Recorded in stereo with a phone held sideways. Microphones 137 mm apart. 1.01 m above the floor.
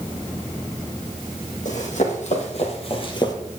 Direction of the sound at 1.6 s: 65° left (ahead or behind).